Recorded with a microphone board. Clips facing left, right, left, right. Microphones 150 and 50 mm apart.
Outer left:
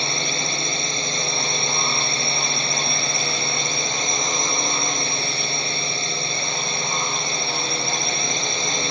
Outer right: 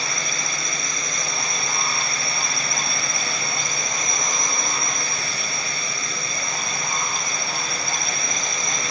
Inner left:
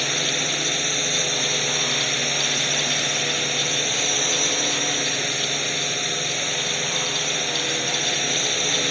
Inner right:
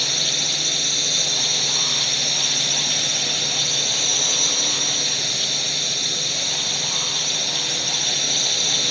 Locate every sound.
0.0 s a drone: 30° left (ahead or behind)